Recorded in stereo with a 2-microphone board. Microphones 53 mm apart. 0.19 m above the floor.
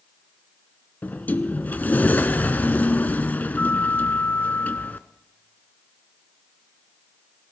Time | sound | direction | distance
1.0 | a sliding door | 35° left (ahead or behind) | 0.5 m